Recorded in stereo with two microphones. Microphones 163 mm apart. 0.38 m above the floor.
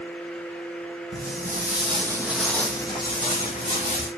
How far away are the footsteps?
About 0.8 m.